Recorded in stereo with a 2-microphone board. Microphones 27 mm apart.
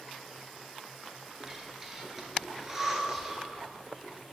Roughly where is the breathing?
Centre.